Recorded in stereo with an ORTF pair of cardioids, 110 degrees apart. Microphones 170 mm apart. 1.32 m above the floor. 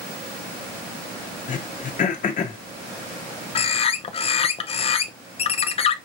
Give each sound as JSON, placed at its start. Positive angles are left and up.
{"t": 1.5, "sound": "throat clearing", "azimuth_deg": 45, "distance_m": 1.1}
{"t": 3.5, "sound": "a bird", "azimuth_deg": 35, "distance_m": 0.6}